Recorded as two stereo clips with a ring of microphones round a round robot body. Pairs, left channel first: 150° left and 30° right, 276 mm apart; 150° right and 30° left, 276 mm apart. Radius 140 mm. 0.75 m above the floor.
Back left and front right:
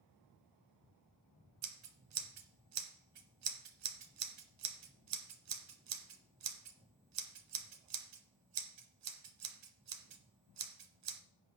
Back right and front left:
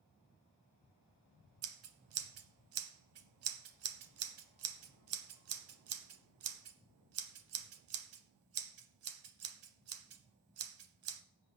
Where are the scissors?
5° right, 1.0 m.